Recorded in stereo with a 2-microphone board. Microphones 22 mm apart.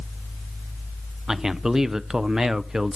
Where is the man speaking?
25° right (ahead or behind), 0.6 m.